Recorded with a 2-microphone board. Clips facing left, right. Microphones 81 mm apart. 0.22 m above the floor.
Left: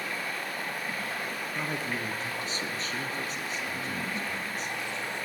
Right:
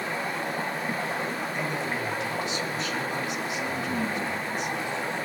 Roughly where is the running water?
Right.